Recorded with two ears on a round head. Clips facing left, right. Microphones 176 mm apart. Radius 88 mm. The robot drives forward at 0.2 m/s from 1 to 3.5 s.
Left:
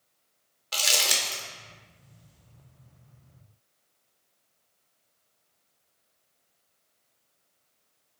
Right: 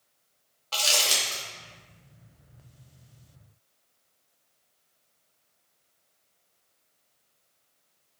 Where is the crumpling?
20° left (ahead or behind), 0.7 m.